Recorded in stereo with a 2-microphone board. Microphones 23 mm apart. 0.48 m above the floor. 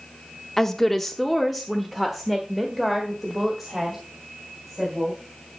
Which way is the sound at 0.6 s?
15° left (ahead or behind).